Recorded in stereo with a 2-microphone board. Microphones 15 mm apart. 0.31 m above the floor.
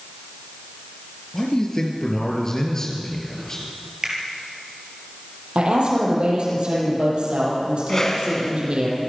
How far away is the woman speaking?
About 9 m.